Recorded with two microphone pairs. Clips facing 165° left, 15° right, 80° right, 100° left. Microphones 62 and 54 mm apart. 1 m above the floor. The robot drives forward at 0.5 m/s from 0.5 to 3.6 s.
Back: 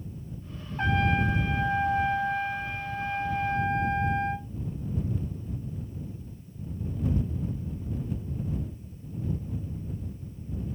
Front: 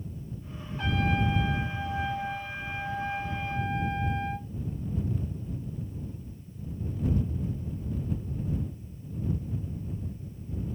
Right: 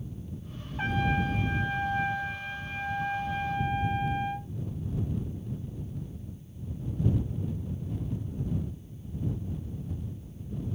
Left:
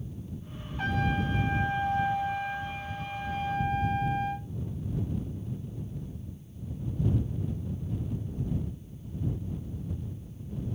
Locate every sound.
0.8 s a trumpet: 150° right, 1.3 m; by 4.5 s 165° right, 2.5 m